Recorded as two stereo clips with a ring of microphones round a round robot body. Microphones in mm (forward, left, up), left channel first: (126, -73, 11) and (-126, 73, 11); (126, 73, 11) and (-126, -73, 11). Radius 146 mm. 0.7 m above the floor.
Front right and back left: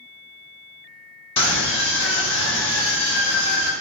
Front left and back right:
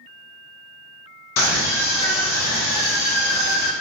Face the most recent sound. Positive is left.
turn(degrees=50)